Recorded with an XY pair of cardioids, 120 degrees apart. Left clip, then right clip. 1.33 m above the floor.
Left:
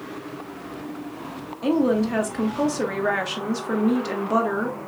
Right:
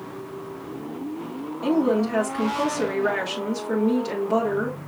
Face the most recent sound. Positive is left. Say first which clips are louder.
# even
turn(degrees=20)